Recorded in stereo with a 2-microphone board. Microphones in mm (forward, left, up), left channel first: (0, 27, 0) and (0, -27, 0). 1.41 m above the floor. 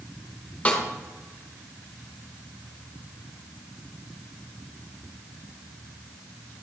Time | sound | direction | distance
0.7 | a snare drum | 25° left (ahead or behind) | 1.7 m